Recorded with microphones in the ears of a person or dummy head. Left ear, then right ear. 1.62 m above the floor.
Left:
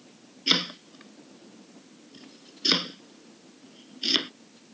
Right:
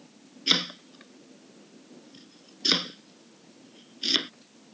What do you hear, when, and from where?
0.5 s chopping: 5° right (ahead or behind)